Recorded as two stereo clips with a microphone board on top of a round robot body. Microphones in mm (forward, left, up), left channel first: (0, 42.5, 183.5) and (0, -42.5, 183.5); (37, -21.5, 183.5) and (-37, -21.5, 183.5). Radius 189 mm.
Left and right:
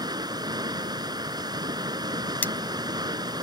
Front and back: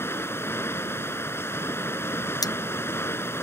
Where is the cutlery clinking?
20° left.